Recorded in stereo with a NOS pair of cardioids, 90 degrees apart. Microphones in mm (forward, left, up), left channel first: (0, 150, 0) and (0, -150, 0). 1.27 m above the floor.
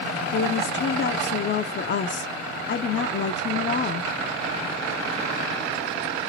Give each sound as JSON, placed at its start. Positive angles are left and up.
{"t": 0.3, "sound": "a woman speaking", "azimuth_deg": 35, "distance_m": 0.6}